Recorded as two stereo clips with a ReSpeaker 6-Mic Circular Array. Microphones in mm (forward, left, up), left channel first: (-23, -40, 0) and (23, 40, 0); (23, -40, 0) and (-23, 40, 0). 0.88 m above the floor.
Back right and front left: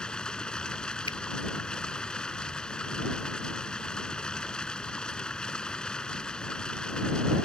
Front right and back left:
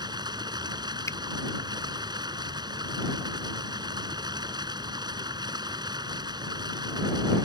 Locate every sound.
0.0 s running water: 160° left
1.1 s a finger snap: 115° right